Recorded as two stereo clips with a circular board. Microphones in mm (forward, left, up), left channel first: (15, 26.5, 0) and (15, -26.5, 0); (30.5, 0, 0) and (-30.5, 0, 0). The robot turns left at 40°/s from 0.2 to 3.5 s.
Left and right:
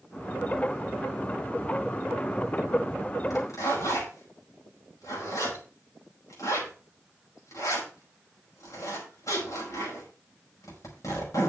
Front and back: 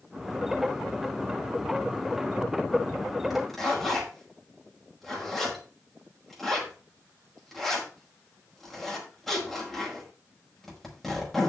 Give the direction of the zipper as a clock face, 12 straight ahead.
9 o'clock.